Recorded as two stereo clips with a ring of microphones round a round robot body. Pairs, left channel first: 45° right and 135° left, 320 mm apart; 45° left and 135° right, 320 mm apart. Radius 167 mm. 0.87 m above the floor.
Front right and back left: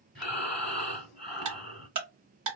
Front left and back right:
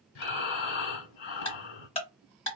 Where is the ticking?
115° left, 1.1 m.